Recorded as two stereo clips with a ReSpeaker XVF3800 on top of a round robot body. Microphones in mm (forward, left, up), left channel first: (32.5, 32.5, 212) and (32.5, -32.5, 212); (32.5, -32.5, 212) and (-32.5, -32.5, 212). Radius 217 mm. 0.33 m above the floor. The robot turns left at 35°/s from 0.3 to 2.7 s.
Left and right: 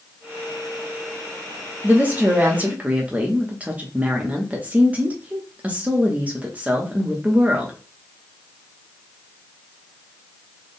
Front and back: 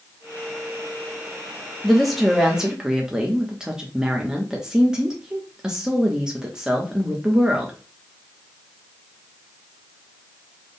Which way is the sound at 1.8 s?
85° right.